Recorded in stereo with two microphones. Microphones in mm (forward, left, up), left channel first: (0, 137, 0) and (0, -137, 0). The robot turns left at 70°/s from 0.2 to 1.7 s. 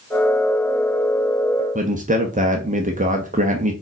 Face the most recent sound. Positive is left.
turn(degrees=-30)  # may be behind; listen again after turning